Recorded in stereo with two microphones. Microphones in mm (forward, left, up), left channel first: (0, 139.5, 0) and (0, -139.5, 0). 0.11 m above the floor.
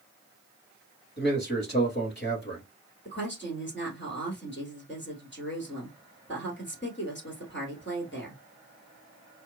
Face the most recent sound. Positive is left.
turn(degrees=40)  # may be behind; listen again after turning